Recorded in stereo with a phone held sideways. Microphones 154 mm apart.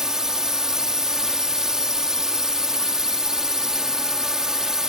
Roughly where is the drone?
Centre.